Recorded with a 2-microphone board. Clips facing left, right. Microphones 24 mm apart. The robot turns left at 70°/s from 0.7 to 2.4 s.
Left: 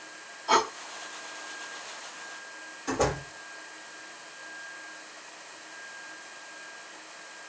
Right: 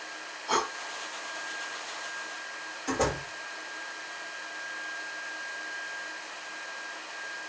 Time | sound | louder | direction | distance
0.5 | breathing | left 5 dB | 20° left (ahead or behind) | 1.1 m
2.9 | a door slam | left 1 dB | 5° left (ahead or behind) | 9 m